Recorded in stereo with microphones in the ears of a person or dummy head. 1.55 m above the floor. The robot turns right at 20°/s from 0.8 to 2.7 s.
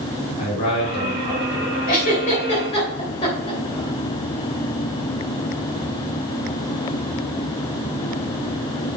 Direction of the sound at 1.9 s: 45° left (ahead or behind).